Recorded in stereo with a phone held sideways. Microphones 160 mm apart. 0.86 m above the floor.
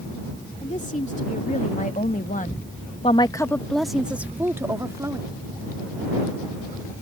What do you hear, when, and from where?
0.6 s a woman speaking: 50° left (ahead or behind); by 5.3 s 20° right (ahead or behind)